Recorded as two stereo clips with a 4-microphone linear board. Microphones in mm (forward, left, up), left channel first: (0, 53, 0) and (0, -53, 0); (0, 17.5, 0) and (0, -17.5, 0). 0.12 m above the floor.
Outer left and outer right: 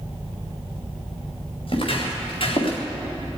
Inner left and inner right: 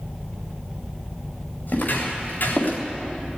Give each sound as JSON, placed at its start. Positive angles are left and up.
{"t": 1.7, "sound": "footsteps", "side_deg": 60, "distance_m": 5.0}